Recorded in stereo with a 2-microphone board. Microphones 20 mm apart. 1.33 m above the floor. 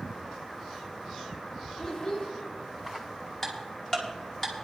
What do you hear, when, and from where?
1.8 s a child speaking: 40° left (ahead or behind), 2 m
3.4 s ticking: 20° left (ahead or behind), 2.5 m